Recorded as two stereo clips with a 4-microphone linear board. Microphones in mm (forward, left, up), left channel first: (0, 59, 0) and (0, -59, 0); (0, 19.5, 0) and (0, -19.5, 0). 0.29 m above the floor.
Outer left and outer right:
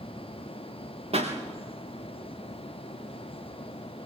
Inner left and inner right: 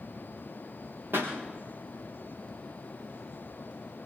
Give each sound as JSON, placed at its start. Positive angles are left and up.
{"t": 1.1, "sound": "a pop", "side_deg": -55, "distance_m": 6.0}